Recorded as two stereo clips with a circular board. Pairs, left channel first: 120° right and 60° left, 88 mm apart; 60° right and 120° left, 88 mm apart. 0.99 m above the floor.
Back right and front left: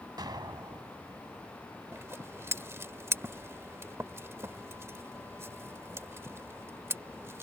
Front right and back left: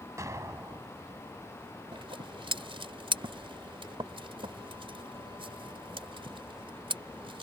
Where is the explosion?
75° left.